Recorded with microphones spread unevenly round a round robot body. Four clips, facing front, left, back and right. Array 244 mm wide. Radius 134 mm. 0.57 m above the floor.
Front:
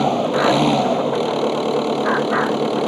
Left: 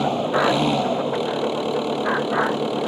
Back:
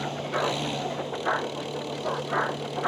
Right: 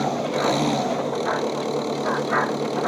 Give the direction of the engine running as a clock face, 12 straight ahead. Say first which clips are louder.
Left 3 dB, front 12 dB; 12 o'clock.